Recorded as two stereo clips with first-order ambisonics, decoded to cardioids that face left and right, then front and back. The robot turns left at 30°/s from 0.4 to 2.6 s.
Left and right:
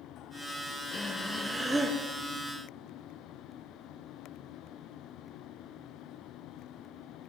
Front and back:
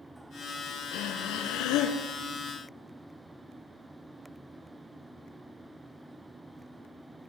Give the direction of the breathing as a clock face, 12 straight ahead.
11 o'clock.